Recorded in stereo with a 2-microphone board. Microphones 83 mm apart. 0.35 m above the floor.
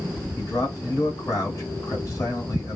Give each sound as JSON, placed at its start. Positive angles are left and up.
{"t": 0.4, "sound": "a man speaking", "side_deg": 40, "distance_m": 1.7}